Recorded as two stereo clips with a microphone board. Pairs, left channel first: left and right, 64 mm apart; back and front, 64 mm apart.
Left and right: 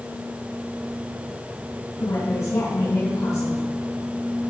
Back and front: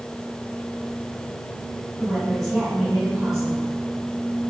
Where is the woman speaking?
85° left, 3 m.